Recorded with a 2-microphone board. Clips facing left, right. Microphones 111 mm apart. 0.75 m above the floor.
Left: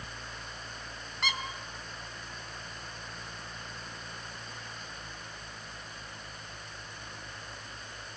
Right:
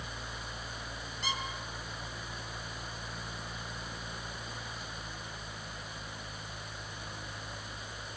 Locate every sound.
1.2 s a squeak: 85° left, 2.5 m